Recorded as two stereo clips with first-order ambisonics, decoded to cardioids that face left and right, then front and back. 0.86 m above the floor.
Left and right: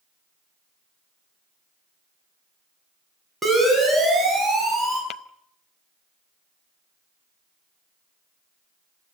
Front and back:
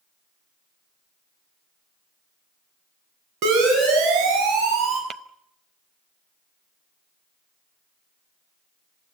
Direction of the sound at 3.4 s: 170° right.